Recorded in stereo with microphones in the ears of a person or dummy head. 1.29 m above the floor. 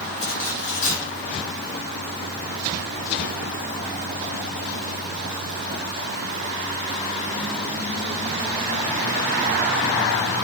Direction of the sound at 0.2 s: 85° left.